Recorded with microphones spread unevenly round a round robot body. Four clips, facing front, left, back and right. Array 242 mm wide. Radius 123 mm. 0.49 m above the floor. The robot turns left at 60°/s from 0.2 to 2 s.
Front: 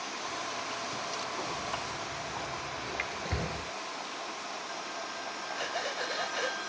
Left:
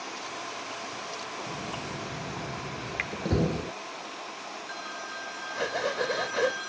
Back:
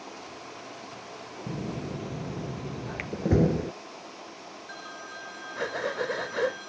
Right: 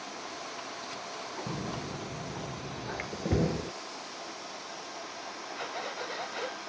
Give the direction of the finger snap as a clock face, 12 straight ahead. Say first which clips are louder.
Left 3 dB, front 1 dB; 7 o'clock.